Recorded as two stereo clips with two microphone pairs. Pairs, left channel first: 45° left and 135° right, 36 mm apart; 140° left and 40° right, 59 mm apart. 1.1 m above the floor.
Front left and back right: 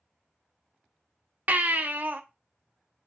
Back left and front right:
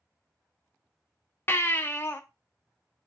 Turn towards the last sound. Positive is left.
turn(degrees=-170)